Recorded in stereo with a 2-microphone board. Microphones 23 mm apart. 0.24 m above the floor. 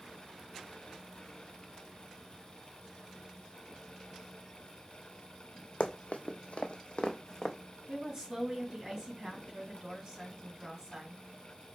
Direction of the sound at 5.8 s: 65° left (ahead or behind).